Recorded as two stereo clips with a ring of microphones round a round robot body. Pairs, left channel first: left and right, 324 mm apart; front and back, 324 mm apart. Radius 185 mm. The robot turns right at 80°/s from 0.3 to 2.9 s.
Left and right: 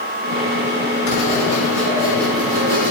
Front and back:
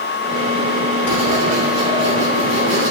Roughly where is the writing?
Left.